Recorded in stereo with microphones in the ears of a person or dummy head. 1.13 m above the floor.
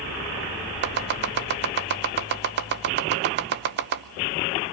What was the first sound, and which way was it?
Chopping, 50° right (ahead or behind).